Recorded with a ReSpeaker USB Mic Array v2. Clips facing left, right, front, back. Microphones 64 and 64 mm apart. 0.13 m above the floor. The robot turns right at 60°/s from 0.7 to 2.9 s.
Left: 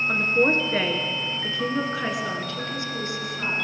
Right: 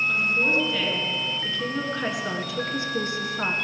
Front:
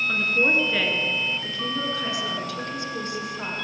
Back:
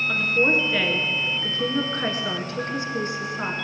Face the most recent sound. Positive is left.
turn(degrees=-130)